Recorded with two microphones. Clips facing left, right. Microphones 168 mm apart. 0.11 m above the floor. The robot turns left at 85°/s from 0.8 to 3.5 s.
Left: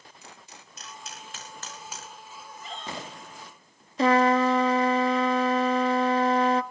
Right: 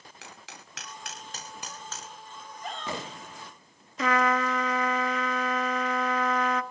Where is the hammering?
85° right, 9 m; by 2.1 s 20° left (ahead or behind), 9 m.